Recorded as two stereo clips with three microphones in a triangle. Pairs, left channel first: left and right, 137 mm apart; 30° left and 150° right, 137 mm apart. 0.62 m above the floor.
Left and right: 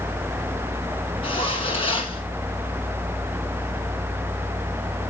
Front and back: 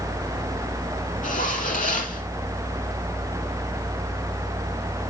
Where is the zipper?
40° left, 3.5 m.